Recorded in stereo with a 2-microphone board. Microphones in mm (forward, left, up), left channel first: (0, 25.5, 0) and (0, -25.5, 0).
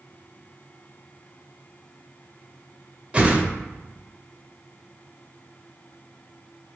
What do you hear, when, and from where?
3.1 s a whoosh: 20° right (ahead or behind), 0.7 m